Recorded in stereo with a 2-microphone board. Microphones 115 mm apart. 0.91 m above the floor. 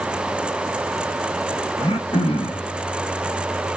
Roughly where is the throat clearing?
Left.